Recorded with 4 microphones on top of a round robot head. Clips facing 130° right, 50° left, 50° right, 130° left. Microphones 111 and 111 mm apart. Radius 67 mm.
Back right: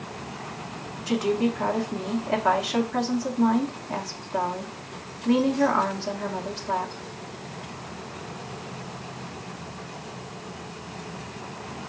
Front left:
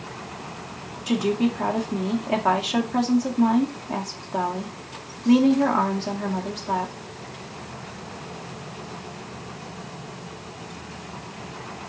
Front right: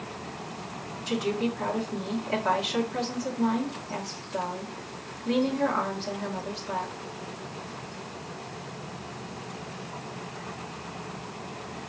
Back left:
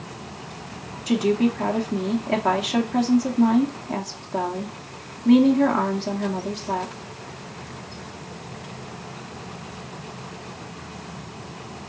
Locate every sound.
1.1 s a woman speaking: 115° left, 1.7 m